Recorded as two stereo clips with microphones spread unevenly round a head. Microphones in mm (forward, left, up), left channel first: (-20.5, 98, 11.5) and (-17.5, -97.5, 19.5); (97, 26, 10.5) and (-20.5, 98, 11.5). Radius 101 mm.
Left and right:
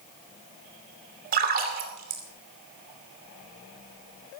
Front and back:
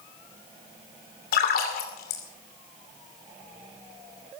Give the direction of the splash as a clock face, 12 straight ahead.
1 o'clock.